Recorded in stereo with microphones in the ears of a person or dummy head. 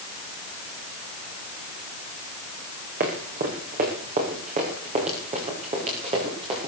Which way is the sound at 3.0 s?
45° right (ahead or behind).